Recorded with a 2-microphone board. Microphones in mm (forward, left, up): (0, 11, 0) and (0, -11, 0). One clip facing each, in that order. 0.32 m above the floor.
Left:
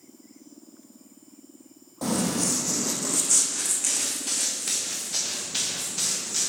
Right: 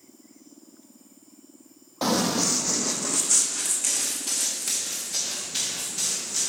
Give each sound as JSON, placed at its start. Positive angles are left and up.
{"t": 2.0, "sound": "running footsteps", "side_deg": -45, "distance_m": 0.5}